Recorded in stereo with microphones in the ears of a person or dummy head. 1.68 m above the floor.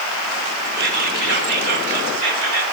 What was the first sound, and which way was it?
Whispering, 60° right (ahead or behind).